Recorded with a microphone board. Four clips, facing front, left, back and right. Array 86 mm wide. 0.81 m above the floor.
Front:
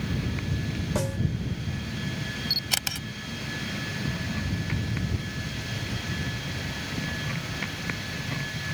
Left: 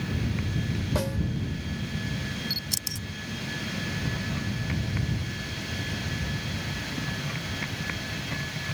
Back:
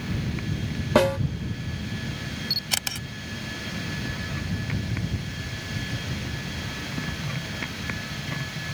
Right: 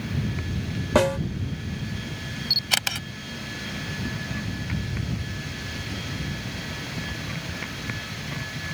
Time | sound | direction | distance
0.9 | a snare drum | 135° right | ?
2.5 | a camera shutter | 90° right | ?